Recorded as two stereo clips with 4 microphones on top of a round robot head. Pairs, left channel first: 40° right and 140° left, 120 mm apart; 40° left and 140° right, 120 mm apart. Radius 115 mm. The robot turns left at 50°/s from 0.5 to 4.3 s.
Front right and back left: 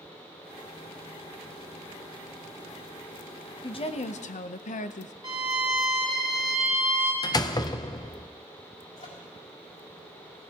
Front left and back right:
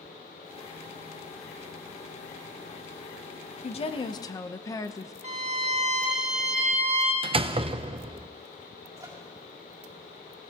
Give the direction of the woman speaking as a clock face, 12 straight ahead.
12 o'clock.